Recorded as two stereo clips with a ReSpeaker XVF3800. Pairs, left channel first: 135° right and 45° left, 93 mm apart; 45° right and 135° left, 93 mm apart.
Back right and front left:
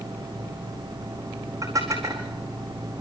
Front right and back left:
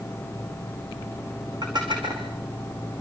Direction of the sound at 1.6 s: 100° left.